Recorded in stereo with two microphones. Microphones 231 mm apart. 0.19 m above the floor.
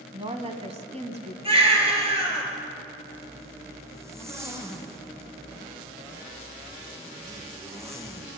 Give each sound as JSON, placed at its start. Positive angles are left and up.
{"t": 0.1, "sound": "a woman speaking", "side_deg": -25, "distance_m": 1.1}
{"t": 1.4, "sound": "a baby crying", "side_deg": -25, "distance_m": 2.5}
{"t": 3.1, "sound": "a zipper", "side_deg": -10, "distance_m": 2.0}